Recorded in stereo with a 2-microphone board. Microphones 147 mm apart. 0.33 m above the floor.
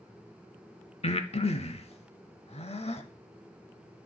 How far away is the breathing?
About 0.7 m.